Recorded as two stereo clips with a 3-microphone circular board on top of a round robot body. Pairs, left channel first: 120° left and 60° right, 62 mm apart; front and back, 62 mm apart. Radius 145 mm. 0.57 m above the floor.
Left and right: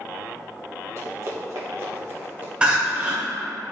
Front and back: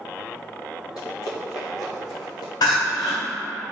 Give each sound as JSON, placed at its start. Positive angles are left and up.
{"t": 1.0, "sound": "running footsteps", "azimuth_deg": -20, "distance_m": 1.5}
{"t": 2.6, "sound": "crying", "azimuth_deg": 10, "distance_m": 0.8}